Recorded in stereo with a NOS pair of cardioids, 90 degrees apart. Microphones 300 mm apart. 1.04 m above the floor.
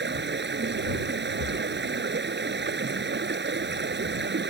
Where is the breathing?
65° left.